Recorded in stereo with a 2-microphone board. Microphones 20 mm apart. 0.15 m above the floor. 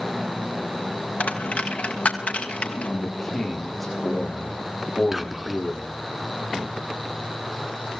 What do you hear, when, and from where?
1.2 s a dropped coin: 85° left, 2 m
2.9 s a man speaking: 5° left (ahead or behind), 9 m
5.1 s whispering: 15° right (ahead or behind), 1.5 m